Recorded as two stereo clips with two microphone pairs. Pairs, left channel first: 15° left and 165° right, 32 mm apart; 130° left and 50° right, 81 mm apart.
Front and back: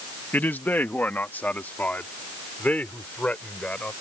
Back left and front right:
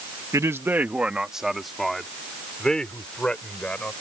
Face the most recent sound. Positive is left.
turn(degrees=55)